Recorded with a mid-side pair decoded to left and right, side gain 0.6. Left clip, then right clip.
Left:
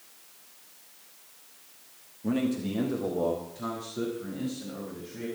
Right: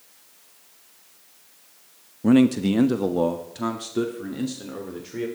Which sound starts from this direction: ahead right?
A man speaking, at 2.2 s.